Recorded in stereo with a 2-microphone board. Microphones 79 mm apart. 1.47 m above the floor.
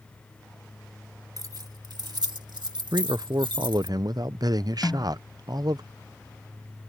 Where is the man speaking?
55° right (ahead or behind).